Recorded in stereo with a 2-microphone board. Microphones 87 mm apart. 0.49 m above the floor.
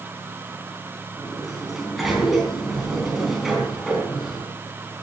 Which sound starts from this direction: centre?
A sliding door, at 1.2 s.